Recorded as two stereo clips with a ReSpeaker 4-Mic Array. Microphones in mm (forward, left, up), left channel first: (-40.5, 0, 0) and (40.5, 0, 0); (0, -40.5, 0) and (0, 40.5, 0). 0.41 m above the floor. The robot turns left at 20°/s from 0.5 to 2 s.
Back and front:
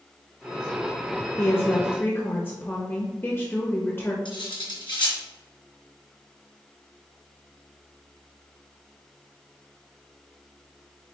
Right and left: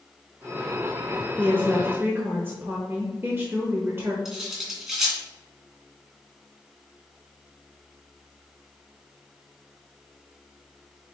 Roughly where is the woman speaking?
Behind left.